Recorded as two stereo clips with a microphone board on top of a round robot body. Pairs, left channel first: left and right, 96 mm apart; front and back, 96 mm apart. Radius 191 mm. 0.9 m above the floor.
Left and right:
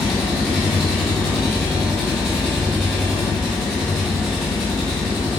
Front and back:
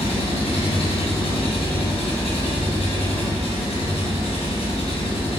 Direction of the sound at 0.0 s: Straight ahead.